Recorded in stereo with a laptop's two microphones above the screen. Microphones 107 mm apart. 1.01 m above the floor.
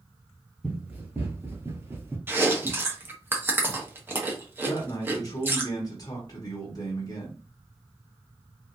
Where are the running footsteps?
15° right (ahead or behind), 1.1 m; by 2.2 s 20° right (ahead or behind), 1.2 m.